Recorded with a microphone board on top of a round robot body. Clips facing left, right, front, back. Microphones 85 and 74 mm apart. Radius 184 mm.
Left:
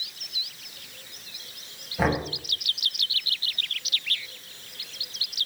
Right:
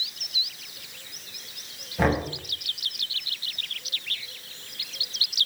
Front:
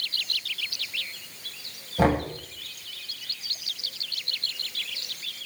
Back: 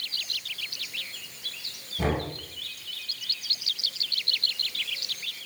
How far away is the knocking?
About 6.5 m.